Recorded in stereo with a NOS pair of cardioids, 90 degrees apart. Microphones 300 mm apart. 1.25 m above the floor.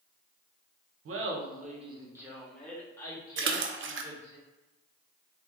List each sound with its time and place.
1.1 s laughter: 55° right, 0.8 m; by 4.4 s 20° left, 2 m
3.4 s a splash: 40° right, 0.5 m